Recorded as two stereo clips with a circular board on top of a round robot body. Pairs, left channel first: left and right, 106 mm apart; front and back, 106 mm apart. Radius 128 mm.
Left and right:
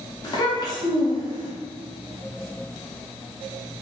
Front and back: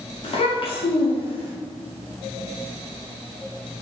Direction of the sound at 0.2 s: 35° left.